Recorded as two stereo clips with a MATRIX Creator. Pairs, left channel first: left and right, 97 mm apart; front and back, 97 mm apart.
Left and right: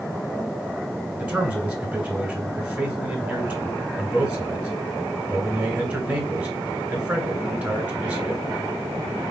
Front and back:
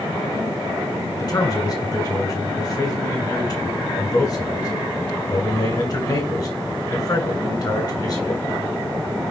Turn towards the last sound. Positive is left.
turn(degrees=-15)